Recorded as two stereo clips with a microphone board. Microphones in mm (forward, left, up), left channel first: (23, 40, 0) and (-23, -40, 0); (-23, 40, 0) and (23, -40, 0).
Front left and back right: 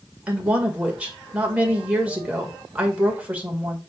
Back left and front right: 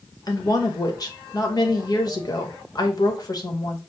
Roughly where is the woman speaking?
Behind.